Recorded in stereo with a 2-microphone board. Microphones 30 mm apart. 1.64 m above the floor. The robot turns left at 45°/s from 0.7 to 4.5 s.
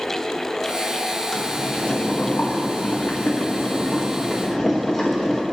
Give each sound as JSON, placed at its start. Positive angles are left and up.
{"t": 1.3, "sound": "boiling", "azimuth_deg": 160, "distance_m": 2.5}